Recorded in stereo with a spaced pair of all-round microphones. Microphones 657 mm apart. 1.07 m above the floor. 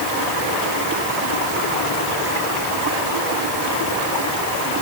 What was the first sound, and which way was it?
Only background noise.